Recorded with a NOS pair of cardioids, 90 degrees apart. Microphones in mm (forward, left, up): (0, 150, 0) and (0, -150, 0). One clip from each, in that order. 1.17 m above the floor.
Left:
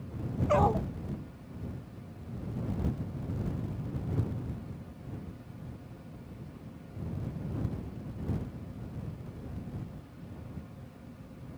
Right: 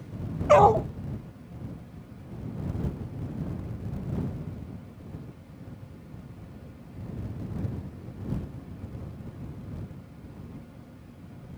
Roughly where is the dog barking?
Ahead right.